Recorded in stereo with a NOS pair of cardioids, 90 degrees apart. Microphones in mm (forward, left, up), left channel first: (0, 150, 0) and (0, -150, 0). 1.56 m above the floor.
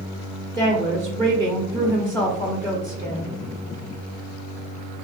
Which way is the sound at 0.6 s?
10° left.